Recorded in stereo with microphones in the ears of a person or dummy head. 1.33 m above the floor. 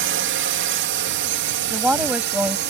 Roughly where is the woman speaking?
Centre.